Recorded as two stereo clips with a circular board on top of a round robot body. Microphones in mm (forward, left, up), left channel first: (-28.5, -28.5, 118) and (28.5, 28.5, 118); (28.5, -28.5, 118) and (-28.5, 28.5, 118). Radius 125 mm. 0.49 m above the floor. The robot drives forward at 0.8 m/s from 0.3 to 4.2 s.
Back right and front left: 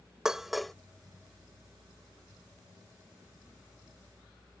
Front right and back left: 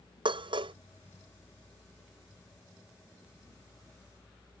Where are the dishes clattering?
130° left; by 0.7 s 135° left.